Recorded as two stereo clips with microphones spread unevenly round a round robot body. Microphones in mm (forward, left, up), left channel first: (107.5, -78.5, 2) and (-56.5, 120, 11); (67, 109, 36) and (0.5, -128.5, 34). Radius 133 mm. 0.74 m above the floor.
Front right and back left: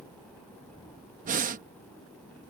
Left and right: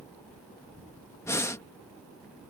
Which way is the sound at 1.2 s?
145° left.